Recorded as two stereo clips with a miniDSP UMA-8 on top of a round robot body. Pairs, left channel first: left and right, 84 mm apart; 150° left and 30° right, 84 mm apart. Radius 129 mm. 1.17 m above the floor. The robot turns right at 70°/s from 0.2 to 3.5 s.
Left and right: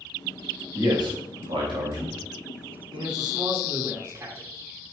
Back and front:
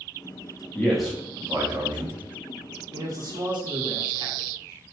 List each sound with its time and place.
0.8 s a man speaking: 140° right, 1.1 m; by 2.2 s 40° right, 1.1 m
2.9 s a man speaking: 70° right, 1.4 m; by 4.5 s 30° right, 1.4 m